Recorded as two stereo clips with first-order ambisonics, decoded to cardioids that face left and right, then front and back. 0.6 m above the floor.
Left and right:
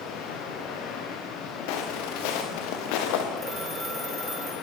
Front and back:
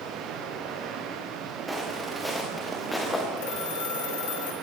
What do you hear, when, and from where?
0.0 s running water: 130° left, 6 m
1.7 s footsteps: 95° left, 5.5 m; by 3.3 s 80° left, 5 m
3.4 s a phone ringing: 10° right, 7.5 m